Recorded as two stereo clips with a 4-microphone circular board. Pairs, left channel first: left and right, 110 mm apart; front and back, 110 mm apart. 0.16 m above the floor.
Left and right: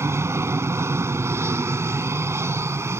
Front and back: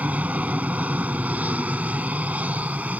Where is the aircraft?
120° right.